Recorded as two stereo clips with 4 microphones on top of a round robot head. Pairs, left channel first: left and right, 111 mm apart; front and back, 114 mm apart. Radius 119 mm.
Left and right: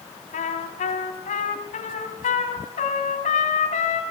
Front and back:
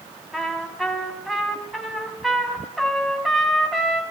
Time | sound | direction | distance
0.3 | a trumpet | 90° left | 4 m